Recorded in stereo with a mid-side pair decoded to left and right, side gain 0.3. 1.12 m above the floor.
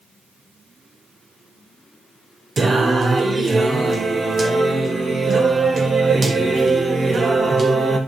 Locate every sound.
2.6 s singing: 55° right, 2.0 m